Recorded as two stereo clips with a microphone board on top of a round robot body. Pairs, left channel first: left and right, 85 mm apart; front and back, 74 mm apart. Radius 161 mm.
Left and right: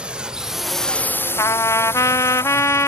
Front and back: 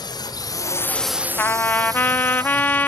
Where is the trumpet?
55° left.